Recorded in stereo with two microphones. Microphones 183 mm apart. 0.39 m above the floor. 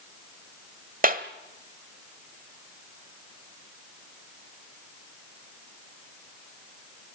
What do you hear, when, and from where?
1.0 s a clap: 50° right (ahead or behind), 1.2 m